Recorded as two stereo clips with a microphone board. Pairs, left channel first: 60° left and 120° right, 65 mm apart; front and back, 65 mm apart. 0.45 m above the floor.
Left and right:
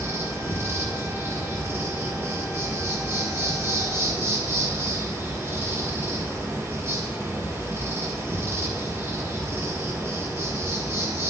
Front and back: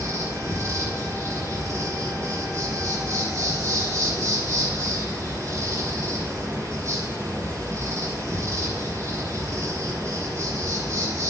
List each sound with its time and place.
0.0 s an insect: 160° right, 3.5 m